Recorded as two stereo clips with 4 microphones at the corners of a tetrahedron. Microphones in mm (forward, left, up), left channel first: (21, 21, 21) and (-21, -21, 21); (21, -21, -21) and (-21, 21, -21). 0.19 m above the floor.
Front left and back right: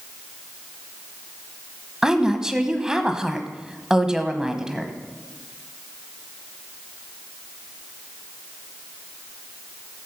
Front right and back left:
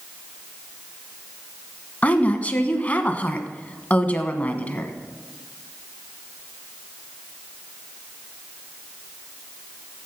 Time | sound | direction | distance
2.0 | a woman speaking | 70° right | 1.1 m